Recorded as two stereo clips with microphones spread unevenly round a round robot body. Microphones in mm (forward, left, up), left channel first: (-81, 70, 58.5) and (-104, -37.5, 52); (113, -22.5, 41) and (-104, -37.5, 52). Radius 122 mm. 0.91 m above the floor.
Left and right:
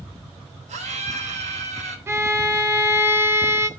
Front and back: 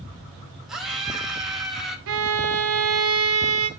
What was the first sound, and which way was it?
A scream, 90° right.